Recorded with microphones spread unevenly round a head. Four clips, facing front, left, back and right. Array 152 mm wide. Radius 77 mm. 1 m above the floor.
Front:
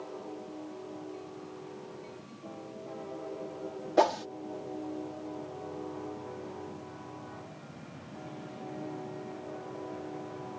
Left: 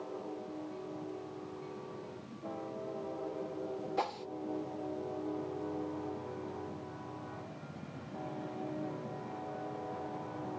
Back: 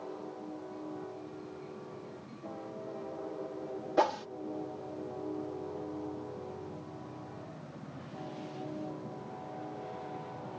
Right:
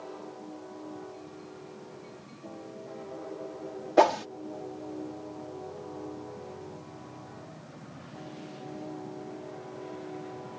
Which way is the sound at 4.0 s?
70° right.